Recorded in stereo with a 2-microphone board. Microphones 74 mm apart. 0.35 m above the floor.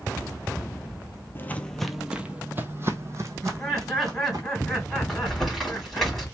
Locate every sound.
1.4 s footsteps: 30° left (ahead or behind), 0.6 m; by 4.4 s 55° right (ahead or behind), 1.7 m
3.4 s laughter: centre (ahead or behind), 3 m
5.1 s crumpling: centre (ahead or behind), 2.5 m